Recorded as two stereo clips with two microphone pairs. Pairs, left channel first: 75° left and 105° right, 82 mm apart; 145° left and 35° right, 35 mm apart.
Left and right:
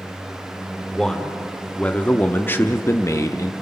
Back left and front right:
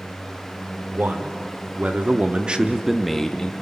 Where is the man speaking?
5° right, 2.5 m; by 3.5 s 95° left, 1.0 m.